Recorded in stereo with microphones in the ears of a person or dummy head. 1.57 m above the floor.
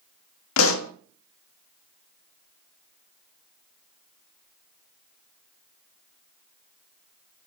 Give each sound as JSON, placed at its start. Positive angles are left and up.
{"t": 0.6, "sound": "a pop", "side_deg": 85, "distance_m": 0.6}